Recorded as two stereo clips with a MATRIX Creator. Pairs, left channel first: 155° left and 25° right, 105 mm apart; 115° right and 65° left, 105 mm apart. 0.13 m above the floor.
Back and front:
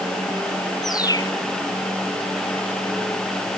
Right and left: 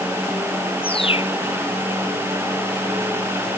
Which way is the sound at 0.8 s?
145° right.